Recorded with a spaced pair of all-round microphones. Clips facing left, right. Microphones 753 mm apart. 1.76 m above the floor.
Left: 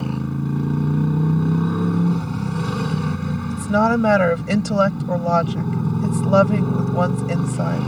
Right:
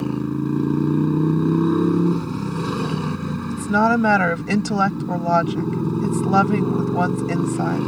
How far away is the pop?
I don't hear a pop.